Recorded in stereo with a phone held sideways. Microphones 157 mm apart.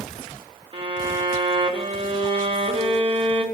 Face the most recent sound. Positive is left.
turn(degrees=-35)  # may be behind; listen again after turning